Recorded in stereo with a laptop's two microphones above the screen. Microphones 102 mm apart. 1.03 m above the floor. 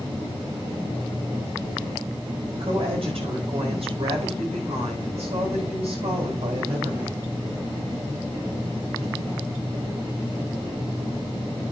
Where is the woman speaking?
70° right (ahead or behind), 5 m; by 7.3 s 80° right, 5.5 m.